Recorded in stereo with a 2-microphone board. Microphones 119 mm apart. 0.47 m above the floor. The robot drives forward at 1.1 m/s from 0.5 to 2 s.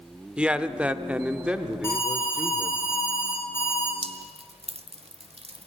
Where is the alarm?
20° left (ahead or behind), 7 m.